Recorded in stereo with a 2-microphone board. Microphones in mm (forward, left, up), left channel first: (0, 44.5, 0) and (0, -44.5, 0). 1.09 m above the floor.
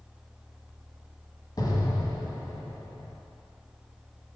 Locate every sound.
1.6 s an explosion: 50° left (ahead or behind), 1.4 m